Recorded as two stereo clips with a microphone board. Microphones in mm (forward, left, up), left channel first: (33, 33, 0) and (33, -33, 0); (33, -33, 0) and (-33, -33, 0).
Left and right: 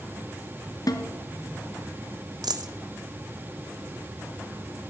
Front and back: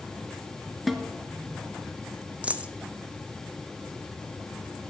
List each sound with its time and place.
0.9 s a snare drum: 90° left, 0.9 m
2.4 s a dropped coin: 105° right, 0.7 m